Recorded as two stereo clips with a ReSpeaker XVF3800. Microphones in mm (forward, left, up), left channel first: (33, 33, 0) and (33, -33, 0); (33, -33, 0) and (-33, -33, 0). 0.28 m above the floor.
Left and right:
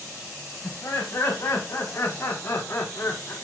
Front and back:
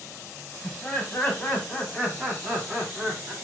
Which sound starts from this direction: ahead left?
Laughter, at 0.6 s.